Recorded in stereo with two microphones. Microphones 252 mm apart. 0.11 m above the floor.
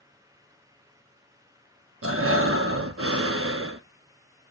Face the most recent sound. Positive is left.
turn(degrees=-60)  # may be behind; listen again after turning